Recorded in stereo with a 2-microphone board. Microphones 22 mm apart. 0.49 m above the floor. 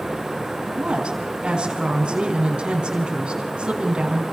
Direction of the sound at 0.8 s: 50° right (ahead or behind).